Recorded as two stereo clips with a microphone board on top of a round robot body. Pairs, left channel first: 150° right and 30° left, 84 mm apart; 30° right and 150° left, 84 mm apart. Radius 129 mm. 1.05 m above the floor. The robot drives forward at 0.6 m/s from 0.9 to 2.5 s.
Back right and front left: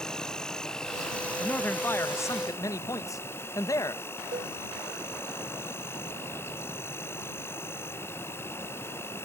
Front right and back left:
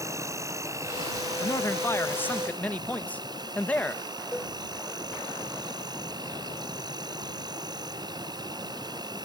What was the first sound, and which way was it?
An insect, 130° left.